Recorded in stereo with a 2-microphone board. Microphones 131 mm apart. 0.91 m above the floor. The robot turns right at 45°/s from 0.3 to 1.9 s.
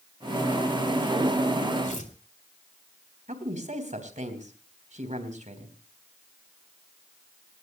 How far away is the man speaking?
About 3.5 m.